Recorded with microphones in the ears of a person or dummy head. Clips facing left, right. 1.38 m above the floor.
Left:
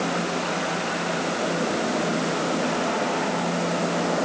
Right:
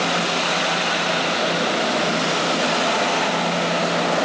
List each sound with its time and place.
Only background noise.